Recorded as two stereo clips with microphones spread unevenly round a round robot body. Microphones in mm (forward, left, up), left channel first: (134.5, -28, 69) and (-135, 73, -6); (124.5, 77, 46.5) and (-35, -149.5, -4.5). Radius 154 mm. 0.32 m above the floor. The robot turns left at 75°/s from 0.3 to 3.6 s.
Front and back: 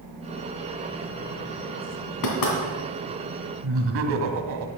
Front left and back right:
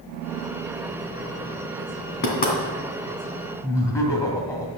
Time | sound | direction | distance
2.2 | knocking | 5° left | 3 m
3.6 | laughter | 140° left | 1.9 m